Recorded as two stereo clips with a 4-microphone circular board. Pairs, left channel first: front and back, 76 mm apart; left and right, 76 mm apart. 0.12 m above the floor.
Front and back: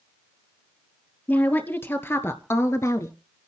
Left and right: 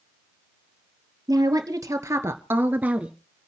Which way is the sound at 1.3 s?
65° right.